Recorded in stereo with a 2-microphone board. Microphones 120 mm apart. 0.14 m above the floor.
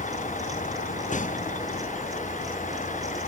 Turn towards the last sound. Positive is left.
turn(degrees=80)